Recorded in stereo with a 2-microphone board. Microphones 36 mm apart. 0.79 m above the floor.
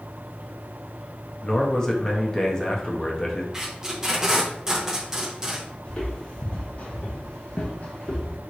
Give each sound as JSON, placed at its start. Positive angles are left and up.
{"t": 1.4, "sound": "a man speaking", "side_deg": 20, "distance_m": 0.8}
{"t": 3.5, "sound": "tape being pulled", "side_deg": -15, "distance_m": 1.0}
{"t": 5.8, "sound": "footsteps", "side_deg": 35, "distance_m": 1.6}